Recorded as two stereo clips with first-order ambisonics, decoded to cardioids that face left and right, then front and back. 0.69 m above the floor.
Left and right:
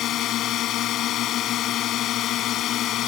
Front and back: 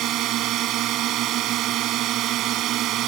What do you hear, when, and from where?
0.0 s a drone: 135° left